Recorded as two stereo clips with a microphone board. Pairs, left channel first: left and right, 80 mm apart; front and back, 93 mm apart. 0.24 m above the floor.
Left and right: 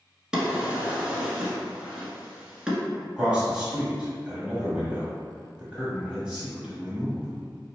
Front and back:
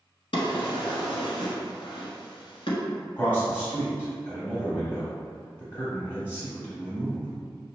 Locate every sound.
0.3 s a drawer: 10° right, 0.9 m
3.2 s a man speaking: 30° right, 1.0 m